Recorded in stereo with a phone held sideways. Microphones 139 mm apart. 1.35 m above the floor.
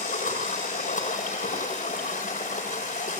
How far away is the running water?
About 7 m.